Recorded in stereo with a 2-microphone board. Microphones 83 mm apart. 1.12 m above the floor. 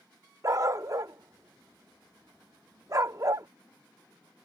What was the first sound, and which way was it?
A dog barking, 45° right (ahead or behind).